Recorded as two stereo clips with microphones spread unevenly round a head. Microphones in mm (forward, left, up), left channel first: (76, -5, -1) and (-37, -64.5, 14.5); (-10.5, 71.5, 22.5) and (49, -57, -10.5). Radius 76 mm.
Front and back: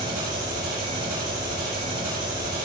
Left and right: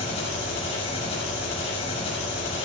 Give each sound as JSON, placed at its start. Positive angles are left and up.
{"t": 0.0, "sound": "an engine running", "azimuth_deg": 170, "distance_m": 6.5}